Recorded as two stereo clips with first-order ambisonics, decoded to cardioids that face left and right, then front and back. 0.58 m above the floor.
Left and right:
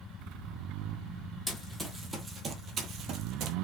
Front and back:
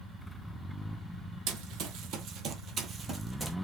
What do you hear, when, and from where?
1.5 s running footsteps: 175° left, 1.0 m; by 3.5 s 100° right, 0.8 m